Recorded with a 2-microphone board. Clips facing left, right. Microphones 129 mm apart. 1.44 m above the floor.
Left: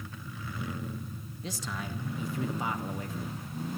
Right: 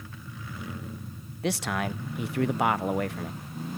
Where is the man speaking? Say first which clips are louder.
Right 10 dB; 70° right (ahead or behind), 0.6 m.